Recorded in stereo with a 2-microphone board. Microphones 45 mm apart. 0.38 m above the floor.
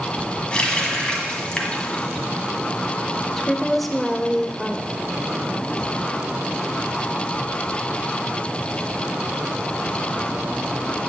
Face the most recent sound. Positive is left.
turn(degrees=5)  # may be behind; listen again after turning